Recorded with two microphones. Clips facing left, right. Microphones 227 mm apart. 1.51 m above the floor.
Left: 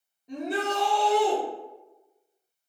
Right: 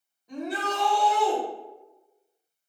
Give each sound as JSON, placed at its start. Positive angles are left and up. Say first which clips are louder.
{"t": 0.3, "sound": "a shout", "louder": "left 2 dB", "side_deg": 20, "distance_m": 1.1}